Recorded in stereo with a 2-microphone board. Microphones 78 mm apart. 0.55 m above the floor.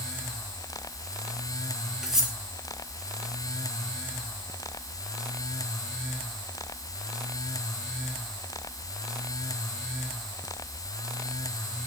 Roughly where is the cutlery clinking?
Centre.